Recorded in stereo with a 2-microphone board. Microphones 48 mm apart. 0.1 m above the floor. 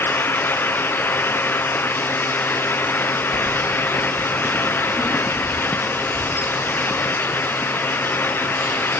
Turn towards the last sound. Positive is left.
turn(degrees=70)  # may be behind; listen again after turning